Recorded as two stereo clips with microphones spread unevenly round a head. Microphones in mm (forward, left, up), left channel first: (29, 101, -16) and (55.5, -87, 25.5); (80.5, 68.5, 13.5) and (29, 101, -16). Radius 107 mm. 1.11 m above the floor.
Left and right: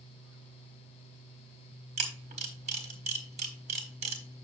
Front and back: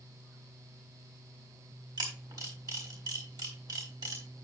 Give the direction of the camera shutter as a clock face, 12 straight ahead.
5 o'clock.